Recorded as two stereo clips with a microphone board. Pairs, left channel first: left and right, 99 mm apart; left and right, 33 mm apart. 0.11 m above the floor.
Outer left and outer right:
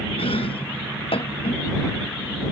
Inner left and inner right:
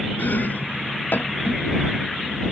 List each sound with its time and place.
0.2 s chopping: 70° left (ahead or behind)